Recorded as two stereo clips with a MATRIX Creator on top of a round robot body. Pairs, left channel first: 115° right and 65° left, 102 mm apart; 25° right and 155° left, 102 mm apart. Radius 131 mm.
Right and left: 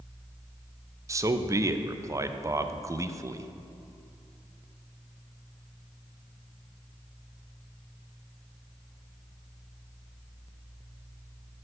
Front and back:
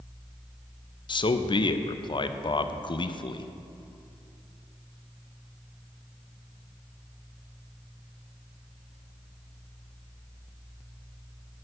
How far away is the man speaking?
About 0.6 m.